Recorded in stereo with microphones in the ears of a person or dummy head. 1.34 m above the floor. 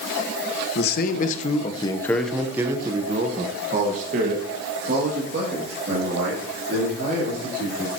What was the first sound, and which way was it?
A man speaking, 65° left (ahead or behind).